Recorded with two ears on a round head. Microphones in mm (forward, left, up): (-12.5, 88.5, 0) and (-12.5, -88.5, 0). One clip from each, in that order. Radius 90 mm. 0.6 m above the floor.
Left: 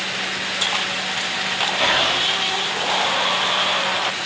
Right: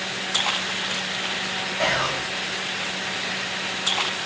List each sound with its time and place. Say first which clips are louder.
1.8 s whispering: left 4 dB; 55° right (ahead or behind), 2.5 m